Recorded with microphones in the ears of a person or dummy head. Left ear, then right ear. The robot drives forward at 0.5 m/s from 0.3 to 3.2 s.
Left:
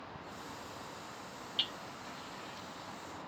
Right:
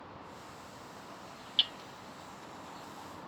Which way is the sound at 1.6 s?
30° right (ahead or behind).